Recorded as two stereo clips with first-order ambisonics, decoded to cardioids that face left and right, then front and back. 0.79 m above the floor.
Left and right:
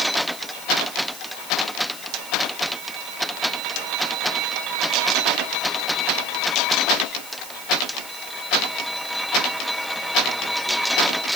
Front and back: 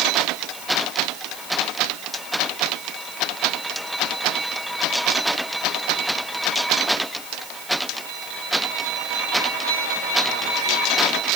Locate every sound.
Only background noise.